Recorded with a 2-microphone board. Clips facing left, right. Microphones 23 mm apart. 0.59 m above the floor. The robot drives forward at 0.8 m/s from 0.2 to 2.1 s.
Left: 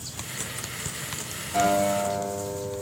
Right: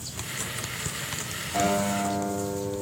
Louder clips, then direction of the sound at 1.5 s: Left 3 dB; 10° left (ahead or behind).